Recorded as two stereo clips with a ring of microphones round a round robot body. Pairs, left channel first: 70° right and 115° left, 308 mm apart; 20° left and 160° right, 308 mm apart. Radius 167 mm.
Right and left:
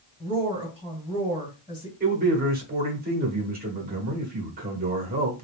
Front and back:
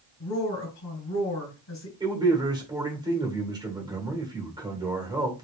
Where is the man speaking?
135° left, 1.5 m.